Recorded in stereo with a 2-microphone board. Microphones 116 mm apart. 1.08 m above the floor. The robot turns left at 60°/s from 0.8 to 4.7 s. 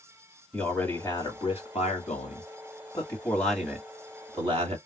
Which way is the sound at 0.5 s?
165° left.